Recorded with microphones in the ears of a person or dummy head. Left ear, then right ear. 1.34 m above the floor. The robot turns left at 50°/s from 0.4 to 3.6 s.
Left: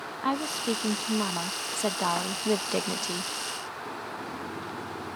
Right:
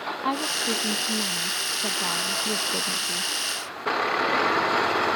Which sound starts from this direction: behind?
A woman speaking, at 0.2 s.